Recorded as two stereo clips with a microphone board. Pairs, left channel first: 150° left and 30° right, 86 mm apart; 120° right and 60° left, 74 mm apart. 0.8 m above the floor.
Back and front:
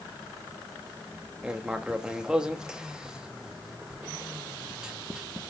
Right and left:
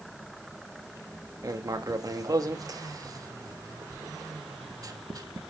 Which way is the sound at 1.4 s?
50° left.